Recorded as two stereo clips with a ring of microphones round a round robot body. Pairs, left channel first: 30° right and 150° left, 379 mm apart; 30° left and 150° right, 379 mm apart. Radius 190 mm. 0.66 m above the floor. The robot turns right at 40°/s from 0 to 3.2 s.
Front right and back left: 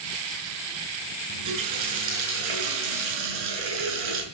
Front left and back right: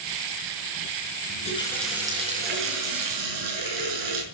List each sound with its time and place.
1.3 s a running tap: 95° left, 6 m; by 4.2 s 175° left, 6 m